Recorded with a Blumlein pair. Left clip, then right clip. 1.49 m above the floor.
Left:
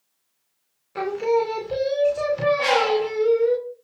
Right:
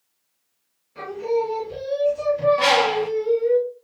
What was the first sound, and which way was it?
Singing, 55° left.